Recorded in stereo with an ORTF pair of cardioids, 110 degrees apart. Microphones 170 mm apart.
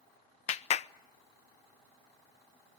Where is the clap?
40° left, 0.9 m.